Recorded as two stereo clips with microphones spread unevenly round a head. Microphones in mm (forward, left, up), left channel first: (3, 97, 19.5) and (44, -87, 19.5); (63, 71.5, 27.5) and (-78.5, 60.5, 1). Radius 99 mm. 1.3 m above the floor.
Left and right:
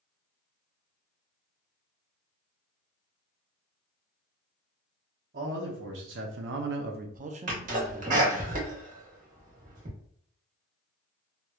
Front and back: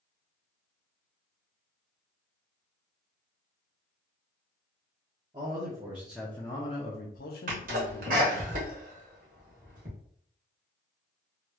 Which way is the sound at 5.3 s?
115° right.